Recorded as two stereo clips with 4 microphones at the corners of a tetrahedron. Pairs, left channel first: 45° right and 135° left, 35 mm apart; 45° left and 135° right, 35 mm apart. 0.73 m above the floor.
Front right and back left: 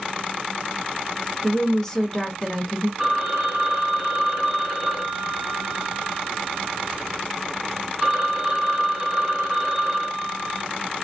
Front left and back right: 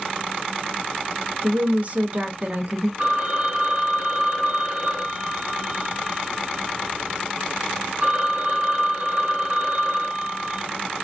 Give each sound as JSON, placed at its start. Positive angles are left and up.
{"t": 1.4, "sound": "a woman speaking", "azimuth_deg": -115, "distance_m": 0.6}
{"t": 3.0, "sound": "a phone ringing", "azimuth_deg": -135, "distance_m": 1.2}